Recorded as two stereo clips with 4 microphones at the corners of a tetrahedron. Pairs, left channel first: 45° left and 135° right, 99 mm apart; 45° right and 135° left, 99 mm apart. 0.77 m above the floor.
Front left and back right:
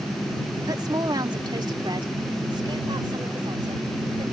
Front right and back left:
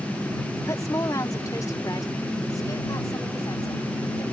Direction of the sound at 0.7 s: 95° right.